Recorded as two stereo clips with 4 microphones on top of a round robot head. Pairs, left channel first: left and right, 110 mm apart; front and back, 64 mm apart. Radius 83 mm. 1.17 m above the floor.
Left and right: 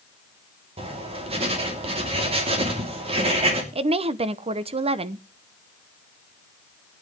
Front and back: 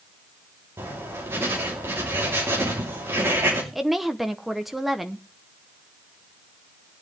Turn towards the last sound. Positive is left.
turn(degrees=-95)